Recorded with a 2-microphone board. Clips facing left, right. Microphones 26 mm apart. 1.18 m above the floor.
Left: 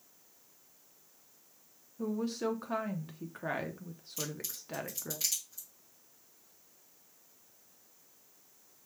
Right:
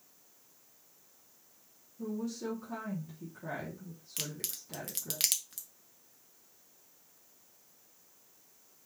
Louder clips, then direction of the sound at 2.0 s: Left 3 dB; 50° left (ahead or behind).